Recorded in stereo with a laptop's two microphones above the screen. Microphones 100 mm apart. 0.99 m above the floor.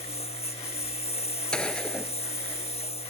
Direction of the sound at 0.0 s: 75° left (ahead or behind).